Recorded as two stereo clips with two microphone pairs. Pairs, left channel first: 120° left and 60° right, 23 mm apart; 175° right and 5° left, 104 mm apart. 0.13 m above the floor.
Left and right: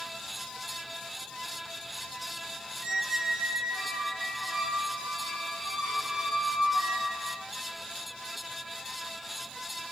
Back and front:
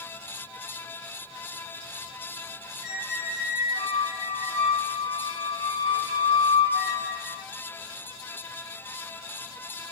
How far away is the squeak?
About 1.5 m.